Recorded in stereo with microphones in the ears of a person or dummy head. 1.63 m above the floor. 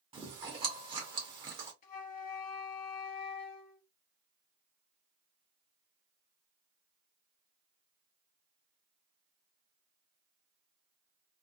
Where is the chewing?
25° right (ahead or behind), 1.0 m.